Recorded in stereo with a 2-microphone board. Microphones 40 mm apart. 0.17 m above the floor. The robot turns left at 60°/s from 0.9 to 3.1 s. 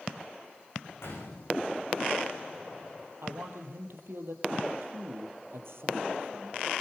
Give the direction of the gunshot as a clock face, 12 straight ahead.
9 o'clock.